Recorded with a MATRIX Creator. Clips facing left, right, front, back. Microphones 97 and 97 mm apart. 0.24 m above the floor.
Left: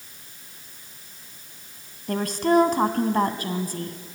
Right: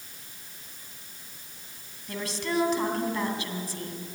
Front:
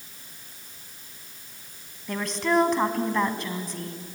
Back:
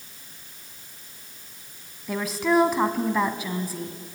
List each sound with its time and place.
2.1 s a woman speaking: 95° left, 1.7 m